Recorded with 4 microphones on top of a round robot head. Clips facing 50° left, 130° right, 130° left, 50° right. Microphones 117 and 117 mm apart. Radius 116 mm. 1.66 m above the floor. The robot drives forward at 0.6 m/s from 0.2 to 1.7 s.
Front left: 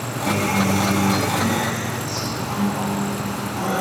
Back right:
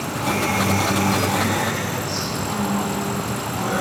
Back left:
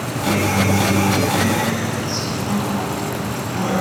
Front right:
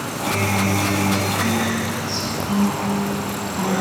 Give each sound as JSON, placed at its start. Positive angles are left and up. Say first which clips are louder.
{"t": 0.3, "sound": "a guitar", "louder": "front left 1 dB, back left 4 dB", "azimuth_deg": 95, "distance_m": 1.0}